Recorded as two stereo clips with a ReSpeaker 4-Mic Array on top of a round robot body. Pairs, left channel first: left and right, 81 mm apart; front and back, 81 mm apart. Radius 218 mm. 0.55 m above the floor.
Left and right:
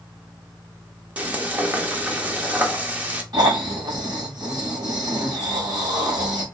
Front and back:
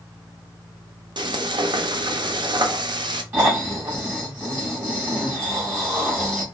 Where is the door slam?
I don't hear a door slam.